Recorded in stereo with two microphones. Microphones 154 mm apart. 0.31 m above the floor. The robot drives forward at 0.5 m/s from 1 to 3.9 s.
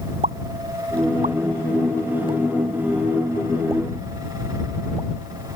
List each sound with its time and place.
0.2 s a pop: 60° right (ahead or behind); by 5.6 s 20° right (ahead or behind)